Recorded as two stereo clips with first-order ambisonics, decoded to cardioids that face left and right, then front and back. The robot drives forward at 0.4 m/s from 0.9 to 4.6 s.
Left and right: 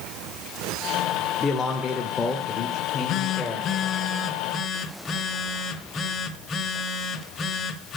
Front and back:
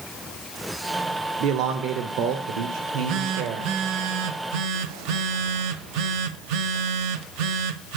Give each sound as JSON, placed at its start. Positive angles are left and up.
{"t": 1.4, "sound": "a man speaking", "azimuth_deg": 160, "distance_m": 1.5}
{"t": 2.8, "sound": "a phone buzzing", "azimuth_deg": 130, "distance_m": 0.6}